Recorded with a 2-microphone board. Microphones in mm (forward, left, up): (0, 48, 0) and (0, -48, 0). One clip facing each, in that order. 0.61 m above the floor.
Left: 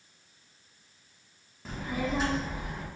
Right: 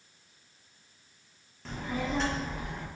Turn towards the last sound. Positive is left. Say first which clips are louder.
# left 1 dB
turn(degrees=5)  # may be behind; listen again after turning